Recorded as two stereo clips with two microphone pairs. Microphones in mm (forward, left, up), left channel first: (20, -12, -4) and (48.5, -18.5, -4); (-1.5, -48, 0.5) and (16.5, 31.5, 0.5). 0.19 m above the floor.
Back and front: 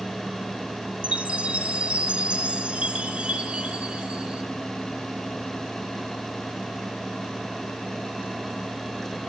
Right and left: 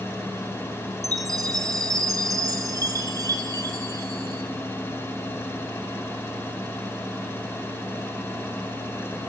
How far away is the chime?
About 1.7 m.